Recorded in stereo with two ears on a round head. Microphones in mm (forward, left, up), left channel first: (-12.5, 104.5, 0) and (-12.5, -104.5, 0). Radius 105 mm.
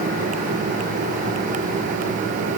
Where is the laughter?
I don't hear laughter.